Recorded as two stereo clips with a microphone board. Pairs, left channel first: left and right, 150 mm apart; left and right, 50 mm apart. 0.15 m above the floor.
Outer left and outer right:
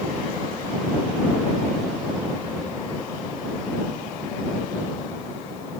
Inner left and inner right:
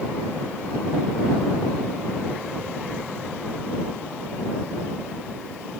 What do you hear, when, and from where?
Only background noise.